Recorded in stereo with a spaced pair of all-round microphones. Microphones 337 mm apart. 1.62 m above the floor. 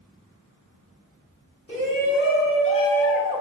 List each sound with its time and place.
1.7 s a shout: 40° left (ahead or behind), 1.1 m; by 3.4 s 20° right (ahead or behind), 0.5 m